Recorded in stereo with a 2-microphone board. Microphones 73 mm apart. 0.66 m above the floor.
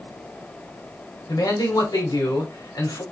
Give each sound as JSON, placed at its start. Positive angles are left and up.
{"t": 1.3, "sound": "a man speaking", "side_deg": 65, "distance_m": 1.8}